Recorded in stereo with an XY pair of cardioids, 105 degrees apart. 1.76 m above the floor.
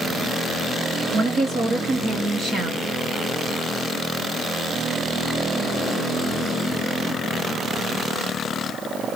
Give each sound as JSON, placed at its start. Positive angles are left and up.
{"t": 1.1, "sound": "a woman speaking", "azimuth_deg": -55, "distance_m": 3.0}